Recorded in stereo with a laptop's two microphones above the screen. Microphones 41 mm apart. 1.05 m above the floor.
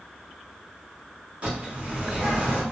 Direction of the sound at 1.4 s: 35° right (ahead or behind).